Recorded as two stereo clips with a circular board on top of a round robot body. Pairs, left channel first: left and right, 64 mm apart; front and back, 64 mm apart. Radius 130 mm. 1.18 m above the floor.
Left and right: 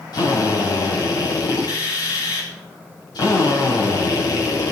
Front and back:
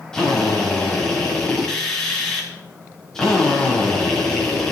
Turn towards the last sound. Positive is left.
turn(degrees=80)